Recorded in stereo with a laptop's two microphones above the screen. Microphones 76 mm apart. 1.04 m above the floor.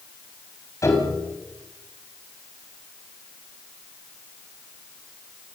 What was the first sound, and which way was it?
A piano, 40° left (ahead or behind).